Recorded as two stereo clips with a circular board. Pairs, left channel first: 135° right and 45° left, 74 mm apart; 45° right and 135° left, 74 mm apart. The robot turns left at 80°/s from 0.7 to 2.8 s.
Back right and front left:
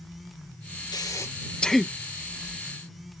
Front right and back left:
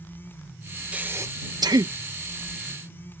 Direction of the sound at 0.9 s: 155° right.